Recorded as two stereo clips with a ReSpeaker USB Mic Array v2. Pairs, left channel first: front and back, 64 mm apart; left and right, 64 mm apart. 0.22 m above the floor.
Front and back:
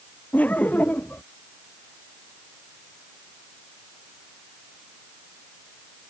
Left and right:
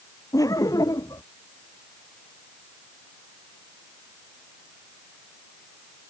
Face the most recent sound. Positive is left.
turn(degrees=65)